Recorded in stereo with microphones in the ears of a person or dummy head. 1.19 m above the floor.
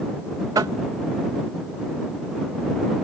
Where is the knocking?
15° right (ahead or behind).